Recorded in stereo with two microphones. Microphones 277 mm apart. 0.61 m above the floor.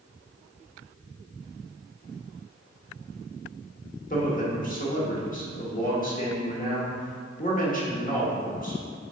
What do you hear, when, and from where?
4.1 s a man speaking: 30° left (ahead or behind), 1.3 m